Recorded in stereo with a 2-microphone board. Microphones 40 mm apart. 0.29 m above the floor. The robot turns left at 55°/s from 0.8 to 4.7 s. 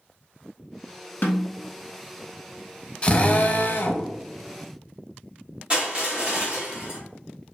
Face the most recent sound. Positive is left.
turn(degrees=-25)  # may be behind; listen again after turning